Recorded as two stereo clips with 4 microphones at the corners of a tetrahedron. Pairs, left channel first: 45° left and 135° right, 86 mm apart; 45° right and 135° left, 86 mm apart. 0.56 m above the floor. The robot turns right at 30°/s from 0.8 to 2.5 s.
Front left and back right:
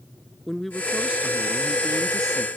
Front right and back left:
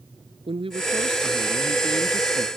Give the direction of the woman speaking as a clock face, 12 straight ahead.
8 o'clock.